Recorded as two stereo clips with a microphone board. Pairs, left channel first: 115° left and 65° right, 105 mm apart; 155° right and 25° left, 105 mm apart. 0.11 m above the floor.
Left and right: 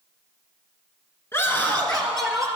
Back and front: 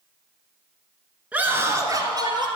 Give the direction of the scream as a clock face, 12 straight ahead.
9 o'clock.